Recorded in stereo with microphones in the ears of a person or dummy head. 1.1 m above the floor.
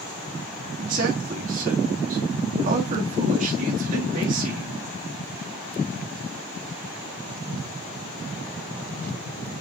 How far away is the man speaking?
About 1.6 m.